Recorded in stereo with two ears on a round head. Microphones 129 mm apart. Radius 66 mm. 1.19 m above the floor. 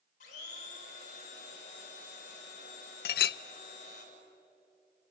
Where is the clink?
80° left, 0.5 m.